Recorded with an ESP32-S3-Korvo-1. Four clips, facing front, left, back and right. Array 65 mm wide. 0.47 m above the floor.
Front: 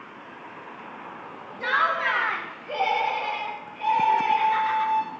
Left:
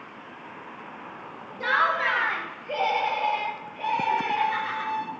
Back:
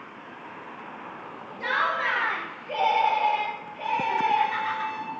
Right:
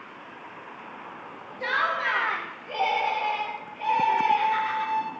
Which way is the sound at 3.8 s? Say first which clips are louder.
Right 3 dB, front 4 dB; 90° left.